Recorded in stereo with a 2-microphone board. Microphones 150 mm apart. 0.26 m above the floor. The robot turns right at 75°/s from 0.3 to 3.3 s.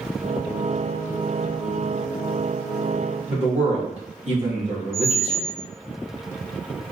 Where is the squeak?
80° right, 1.6 m.